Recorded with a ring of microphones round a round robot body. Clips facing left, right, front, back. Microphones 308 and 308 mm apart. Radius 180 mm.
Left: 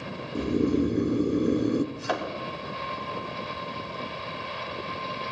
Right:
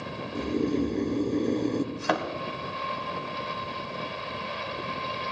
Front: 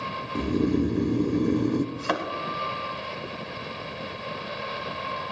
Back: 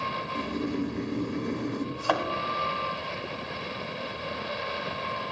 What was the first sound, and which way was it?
Snoring, 15° left.